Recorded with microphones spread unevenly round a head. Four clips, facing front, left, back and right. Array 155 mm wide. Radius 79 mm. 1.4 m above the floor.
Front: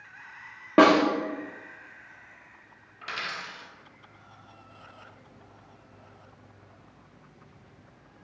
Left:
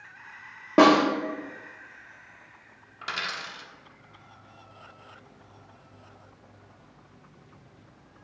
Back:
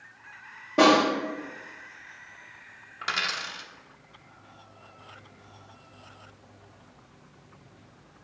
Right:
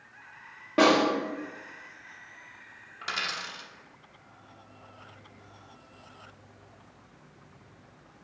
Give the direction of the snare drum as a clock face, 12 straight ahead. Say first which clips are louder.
Left 4 dB, front 1 dB; 11 o'clock.